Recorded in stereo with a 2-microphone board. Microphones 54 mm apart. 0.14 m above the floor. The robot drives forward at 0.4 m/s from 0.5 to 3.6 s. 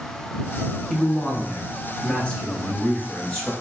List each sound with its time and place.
0.9 s a man speaking: 20° left (ahead or behind), 1.1 m; by 3.5 s 15° left (ahead or behind), 1.7 m